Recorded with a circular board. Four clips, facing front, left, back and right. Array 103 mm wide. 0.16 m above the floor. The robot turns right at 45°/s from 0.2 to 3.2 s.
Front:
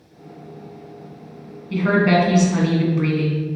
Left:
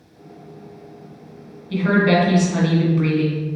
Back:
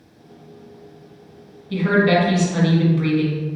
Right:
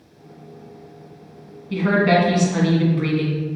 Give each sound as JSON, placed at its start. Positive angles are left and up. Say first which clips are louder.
{"t": 1.7, "sound": "a woman speaking", "louder": "even, even", "azimuth_deg": -30, "distance_m": 1.2}